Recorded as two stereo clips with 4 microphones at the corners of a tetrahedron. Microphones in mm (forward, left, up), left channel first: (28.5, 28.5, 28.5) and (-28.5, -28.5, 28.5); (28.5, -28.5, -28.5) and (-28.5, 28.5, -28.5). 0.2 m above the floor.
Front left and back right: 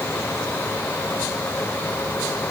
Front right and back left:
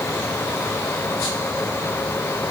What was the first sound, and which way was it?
Only background noise.